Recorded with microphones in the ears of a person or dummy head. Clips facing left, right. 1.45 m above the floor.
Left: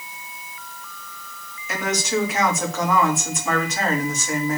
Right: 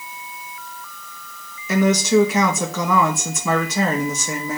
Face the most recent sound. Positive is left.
turn(degrees=-85)